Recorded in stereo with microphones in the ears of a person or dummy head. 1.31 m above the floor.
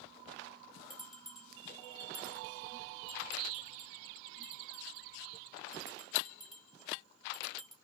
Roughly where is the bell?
Centre.